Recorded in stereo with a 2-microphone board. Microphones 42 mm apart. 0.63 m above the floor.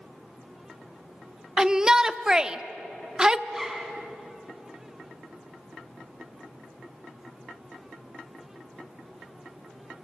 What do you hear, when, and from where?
1.6 s a shout: 20° right (ahead or behind), 0.8 m
3.5 s a zipper: centre (ahead or behind), 2.5 m